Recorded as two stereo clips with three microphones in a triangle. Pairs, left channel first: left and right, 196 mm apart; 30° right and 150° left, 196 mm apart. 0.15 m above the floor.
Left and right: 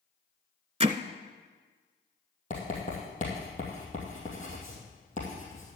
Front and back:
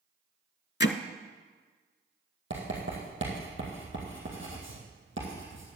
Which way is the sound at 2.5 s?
140° left.